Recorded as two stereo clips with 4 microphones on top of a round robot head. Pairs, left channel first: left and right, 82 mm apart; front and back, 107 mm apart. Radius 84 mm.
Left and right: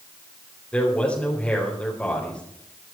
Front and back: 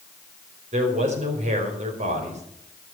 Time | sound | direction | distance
0.7 | a man speaking | 170° left | 4.5 m